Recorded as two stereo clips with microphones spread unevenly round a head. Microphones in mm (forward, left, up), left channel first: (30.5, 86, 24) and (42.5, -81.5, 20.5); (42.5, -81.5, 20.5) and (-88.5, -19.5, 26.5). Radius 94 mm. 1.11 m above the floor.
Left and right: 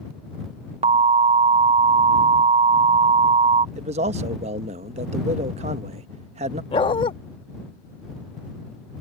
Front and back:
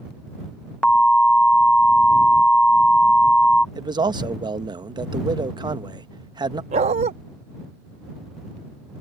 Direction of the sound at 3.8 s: 145° right.